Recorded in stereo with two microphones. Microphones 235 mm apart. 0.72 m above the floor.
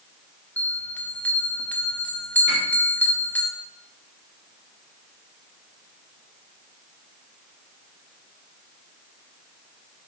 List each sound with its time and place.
0.6 s a bell: 5° left (ahead or behind), 0.9 m
2.5 s a piano: 50° right (ahead or behind), 3.5 m